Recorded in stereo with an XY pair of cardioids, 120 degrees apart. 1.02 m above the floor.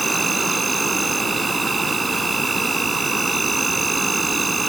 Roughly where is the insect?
Ahead.